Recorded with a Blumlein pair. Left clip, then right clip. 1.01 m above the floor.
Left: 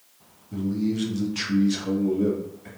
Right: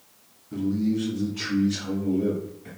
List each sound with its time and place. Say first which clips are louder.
0.5 s a man speaking: right 1 dB; 10° right, 0.7 m; by 2.7 s 75° left, 1.6 m